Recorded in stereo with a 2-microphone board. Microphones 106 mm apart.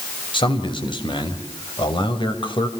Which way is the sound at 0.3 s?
50° left (ahead or behind).